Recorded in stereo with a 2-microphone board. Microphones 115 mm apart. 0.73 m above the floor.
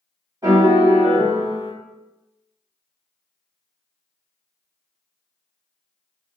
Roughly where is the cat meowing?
I don't hear a cat meowing.